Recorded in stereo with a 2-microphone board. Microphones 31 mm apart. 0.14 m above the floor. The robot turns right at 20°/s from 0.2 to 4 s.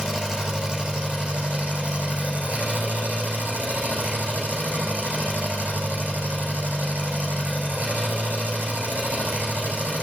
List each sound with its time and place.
0.0 s an engine running: 155° right, 4.5 m; by 10.0 s 80° right, 4.5 m